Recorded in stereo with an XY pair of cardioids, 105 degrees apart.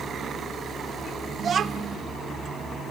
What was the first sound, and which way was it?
A child speaking, 50° right.